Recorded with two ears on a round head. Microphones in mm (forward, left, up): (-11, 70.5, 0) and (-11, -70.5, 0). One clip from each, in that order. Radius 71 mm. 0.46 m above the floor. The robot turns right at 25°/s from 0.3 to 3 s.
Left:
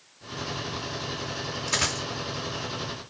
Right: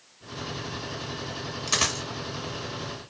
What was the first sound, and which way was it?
A dropped coin, 60° right (ahead or behind).